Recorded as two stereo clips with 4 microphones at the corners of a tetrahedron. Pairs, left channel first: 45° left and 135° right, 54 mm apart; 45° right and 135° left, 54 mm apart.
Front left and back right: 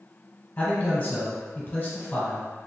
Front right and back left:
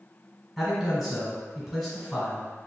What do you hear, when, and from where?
0.6 s a man speaking: 45° left, 1.2 m